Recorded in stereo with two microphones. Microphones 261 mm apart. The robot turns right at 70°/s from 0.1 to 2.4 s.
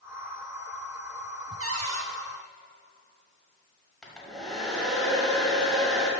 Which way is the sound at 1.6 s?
125° right.